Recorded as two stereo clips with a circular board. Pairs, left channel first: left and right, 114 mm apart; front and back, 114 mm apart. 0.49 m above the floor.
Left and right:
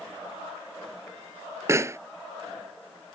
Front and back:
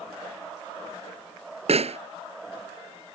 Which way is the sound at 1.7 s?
155° right.